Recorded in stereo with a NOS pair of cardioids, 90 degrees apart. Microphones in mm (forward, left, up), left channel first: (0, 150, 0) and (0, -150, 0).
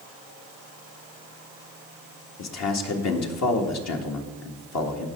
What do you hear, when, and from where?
2.4 s a man speaking: 60° left, 1.8 m